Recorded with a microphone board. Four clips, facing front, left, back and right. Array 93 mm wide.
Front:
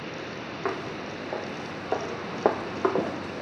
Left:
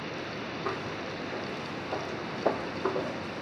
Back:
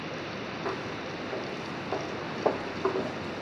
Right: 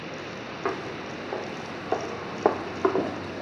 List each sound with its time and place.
0.7 s footsteps: 45° right, 5 m